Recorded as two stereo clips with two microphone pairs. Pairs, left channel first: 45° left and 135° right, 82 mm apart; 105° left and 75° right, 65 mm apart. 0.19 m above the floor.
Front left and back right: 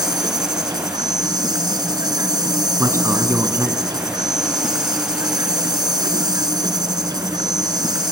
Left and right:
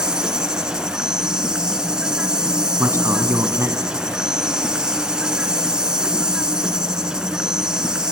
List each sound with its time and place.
0.0 s an insect: 150° right, 1.0 m
2.8 s a man speaking: 95° right, 1.7 m